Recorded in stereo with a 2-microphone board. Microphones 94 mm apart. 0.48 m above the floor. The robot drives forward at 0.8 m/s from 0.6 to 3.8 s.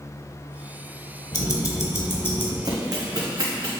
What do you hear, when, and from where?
1.3 s ticking: 45° left (ahead or behind), 1.1 m; by 2.5 s 25° left (ahead or behind), 1.9 m
2.6 s running footsteps: 45° right (ahead or behind), 1.6 m; by 3.7 s 30° right (ahead or behind), 3 m